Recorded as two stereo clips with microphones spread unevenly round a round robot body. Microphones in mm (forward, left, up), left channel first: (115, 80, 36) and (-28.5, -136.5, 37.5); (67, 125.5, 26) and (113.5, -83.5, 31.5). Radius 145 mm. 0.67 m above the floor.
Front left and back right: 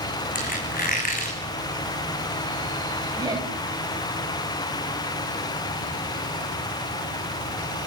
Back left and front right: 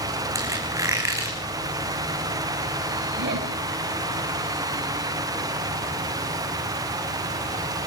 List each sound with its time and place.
0.3 s a squeak: straight ahead, 7 m
3.2 s laughter: 50° right, 4 m